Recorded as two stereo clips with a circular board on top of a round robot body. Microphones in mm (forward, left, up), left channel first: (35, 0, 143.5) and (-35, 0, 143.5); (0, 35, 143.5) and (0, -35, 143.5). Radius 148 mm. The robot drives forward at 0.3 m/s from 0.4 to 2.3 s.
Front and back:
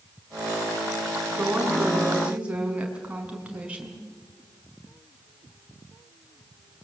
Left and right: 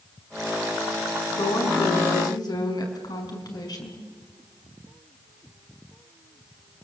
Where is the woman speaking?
105° left, 5 m.